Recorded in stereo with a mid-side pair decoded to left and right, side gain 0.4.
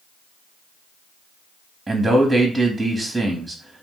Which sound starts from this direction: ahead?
A man speaking, at 1.9 s.